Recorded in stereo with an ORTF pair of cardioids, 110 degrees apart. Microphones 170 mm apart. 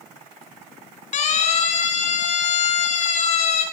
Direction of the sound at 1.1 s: 45° left.